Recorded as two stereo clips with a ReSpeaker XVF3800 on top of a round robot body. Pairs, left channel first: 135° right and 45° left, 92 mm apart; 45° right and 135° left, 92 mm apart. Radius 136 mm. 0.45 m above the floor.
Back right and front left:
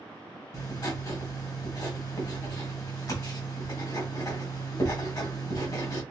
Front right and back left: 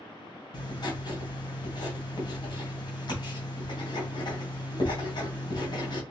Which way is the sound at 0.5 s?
85° right.